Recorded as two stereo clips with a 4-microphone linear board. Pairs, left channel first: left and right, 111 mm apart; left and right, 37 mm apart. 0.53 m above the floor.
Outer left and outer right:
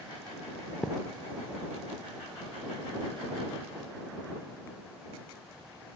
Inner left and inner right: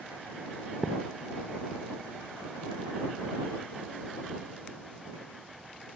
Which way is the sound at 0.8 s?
10° left (ahead or behind).